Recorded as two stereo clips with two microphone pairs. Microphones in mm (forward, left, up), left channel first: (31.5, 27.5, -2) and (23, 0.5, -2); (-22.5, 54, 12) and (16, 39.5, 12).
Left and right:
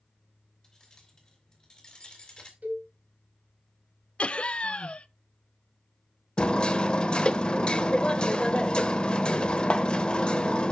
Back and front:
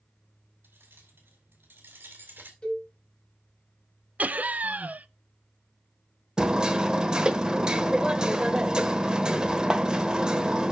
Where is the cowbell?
135° right, 4 m.